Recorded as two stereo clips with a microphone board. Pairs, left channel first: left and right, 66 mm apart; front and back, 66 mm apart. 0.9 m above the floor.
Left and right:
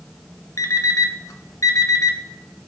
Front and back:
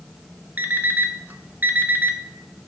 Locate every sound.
0.6 s an alarm clock: 120° left, 0.6 m